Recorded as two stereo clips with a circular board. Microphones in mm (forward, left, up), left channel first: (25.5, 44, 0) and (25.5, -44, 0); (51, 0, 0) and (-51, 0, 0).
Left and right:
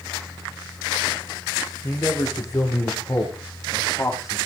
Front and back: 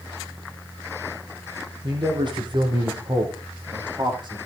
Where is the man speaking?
140° left, 6.5 m.